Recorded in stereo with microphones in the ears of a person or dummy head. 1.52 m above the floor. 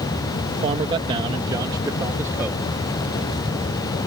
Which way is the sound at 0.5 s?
35° right (ahead or behind).